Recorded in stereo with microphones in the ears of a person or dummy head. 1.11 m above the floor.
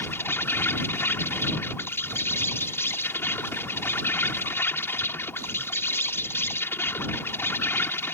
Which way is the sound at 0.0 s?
15° left (ahead or behind).